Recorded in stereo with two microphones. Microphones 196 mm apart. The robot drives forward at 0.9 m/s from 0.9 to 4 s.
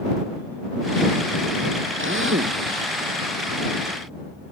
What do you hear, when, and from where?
2.0 s a drill: 85° right